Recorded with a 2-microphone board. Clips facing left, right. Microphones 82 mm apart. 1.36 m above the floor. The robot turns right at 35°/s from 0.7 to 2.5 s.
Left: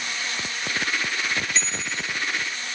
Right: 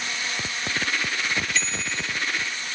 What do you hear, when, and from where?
1.6 s a bicycle bell: 30° left (ahead or behind), 3 m; by 2.1 s 50° left (ahead or behind), 3 m